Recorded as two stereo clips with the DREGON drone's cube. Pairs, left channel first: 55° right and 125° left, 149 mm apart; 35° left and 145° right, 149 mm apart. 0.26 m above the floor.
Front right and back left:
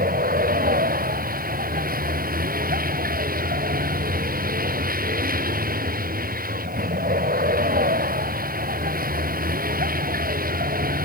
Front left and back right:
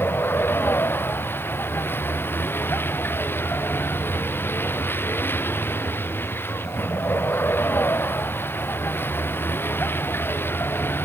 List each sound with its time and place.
0.0 s a vehicle: 110° left